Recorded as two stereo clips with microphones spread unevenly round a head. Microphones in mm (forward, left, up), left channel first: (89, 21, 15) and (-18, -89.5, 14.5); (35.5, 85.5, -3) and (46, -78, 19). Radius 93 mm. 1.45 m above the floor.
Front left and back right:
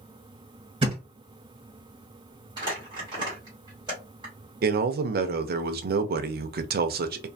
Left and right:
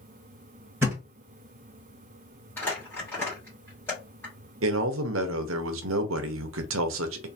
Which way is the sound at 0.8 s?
135° right.